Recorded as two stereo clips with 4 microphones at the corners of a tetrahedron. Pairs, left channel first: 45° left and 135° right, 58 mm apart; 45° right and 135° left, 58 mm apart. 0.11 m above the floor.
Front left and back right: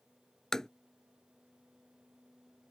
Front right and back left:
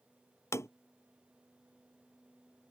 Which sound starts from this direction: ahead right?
Tapping, at 0.5 s.